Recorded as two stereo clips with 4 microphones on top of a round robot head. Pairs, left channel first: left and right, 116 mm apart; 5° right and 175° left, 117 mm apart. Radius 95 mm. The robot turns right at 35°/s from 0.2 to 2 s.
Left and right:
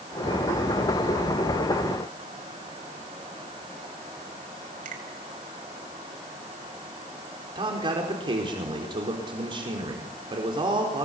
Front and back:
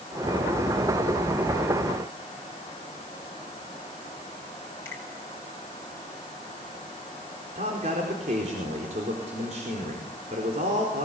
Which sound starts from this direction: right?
A finger snap, at 4.8 s.